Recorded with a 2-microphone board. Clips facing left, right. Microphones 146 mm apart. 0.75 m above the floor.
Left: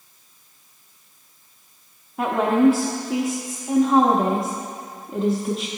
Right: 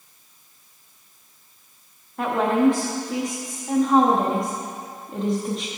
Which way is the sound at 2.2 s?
5° left (ahead or behind).